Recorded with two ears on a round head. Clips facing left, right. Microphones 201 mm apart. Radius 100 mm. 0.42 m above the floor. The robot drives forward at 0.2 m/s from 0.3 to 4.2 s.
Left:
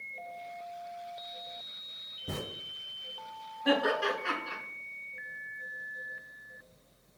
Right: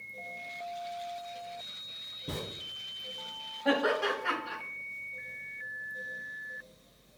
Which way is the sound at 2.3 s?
Centre (ahead or behind).